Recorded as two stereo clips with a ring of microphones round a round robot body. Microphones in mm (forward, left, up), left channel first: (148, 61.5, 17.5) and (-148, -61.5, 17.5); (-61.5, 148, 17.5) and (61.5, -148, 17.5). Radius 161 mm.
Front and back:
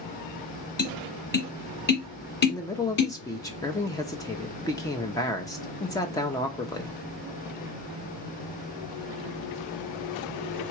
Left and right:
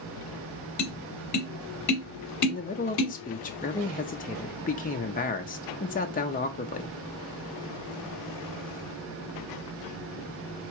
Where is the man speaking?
90° left, 0.6 m.